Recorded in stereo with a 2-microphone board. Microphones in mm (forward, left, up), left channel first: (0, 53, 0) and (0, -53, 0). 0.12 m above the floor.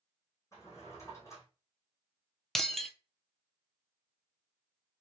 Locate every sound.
0.5 s a drawer: 30° left (ahead or behind), 2.5 m
2.5 s breaking glass: 5° left (ahead or behind), 0.6 m